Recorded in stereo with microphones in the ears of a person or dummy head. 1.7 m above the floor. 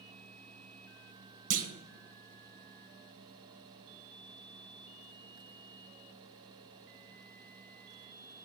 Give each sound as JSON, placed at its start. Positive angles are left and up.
{"t": 1.5, "sound": "a clunk", "side_deg": -55, "distance_m": 0.9}